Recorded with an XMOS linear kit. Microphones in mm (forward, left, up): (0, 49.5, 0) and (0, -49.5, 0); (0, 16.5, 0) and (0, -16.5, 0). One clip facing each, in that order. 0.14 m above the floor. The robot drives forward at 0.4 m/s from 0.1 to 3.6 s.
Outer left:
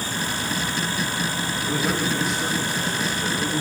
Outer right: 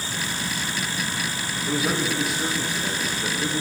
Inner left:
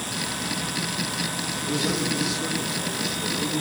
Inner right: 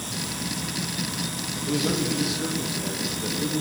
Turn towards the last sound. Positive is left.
turn(degrees=-5)  # may be behind; listen again after turning